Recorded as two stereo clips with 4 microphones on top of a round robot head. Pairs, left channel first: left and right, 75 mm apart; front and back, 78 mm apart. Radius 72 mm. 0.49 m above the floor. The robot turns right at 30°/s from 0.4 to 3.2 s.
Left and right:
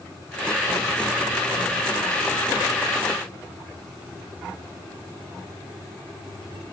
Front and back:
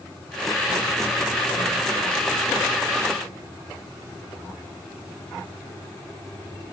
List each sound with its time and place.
Only background noise.